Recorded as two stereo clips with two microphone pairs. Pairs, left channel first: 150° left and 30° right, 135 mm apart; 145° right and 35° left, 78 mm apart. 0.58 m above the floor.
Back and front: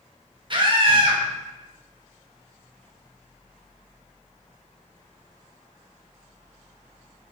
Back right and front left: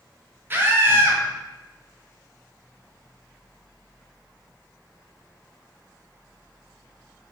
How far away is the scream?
About 0.8 m.